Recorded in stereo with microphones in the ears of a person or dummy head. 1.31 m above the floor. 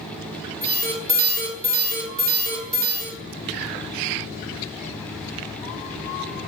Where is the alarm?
45° right (ahead or behind), 0.9 m.